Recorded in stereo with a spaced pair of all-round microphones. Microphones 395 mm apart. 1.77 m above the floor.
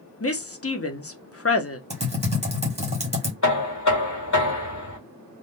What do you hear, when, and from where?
0.2 s a woman speaking: 35° left (ahead or behind), 0.6 m
1.9 s typing on a keyboard: 15° right (ahead or behind), 1.0 m
3.4 s knocking: 45° left (ahead or behind), 1.5 m